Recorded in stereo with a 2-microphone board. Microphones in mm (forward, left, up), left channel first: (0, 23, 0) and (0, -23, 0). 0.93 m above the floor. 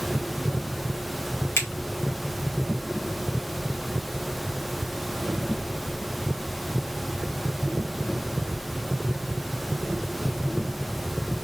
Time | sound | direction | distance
1.6 | a finger snap | 65° left (ahead or behind) | 1.9 m